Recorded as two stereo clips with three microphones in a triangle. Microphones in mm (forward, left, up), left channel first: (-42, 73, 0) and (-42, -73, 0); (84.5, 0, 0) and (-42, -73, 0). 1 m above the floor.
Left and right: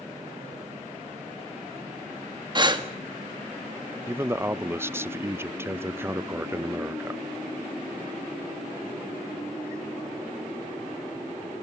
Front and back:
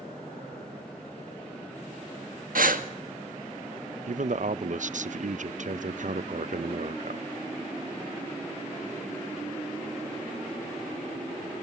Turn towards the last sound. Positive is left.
turn(degrees=-165)